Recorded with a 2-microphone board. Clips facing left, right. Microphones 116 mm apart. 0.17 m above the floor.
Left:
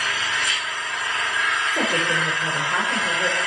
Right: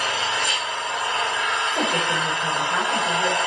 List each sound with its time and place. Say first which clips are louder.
0.0 s an engine running: right 2 dB; 35° right (ahead or behind), 1.1 m
1.7 s a woman speaking: left 1 dB; 35° left (ahead or behind), 6 m